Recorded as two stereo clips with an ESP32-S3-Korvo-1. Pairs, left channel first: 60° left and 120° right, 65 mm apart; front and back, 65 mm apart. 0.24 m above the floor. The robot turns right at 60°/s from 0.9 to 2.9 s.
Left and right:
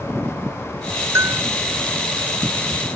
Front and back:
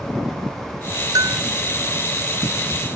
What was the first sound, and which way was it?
A bell, 165° right.